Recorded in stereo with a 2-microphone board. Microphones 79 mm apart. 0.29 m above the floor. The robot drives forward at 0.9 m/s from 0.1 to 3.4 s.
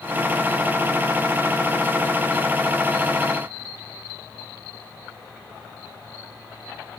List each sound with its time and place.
Only background noise.